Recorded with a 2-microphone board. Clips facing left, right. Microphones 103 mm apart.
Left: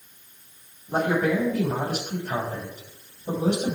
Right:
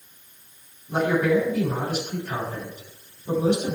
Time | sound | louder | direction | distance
0.9 | a man speaking | right 2 dB | 45° left (ahead or behind) | 6 m